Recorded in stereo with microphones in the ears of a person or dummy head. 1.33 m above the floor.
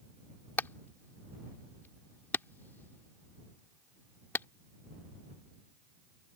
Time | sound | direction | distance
0.6 | hammering | 10° left (ahead or behind) | ?